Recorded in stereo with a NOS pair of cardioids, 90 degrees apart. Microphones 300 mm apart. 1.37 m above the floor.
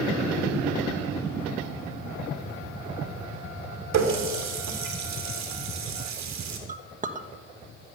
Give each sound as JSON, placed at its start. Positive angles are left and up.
{"t": 3.9, "sound": "a running tap", "azimuth_deg": -70, "distance_m": 2.5}
{"t": 6.7, "sound": "a clink", "azimuth_deg": -25, "distance_m": 1.3}